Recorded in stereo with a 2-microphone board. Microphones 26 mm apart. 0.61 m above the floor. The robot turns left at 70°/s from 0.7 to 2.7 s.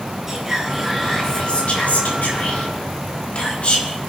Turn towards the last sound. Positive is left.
turn(degrees=50)